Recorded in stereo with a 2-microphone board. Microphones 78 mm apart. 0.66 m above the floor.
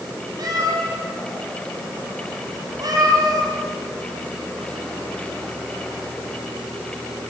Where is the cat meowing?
50° right (ahead or behind), 7 m.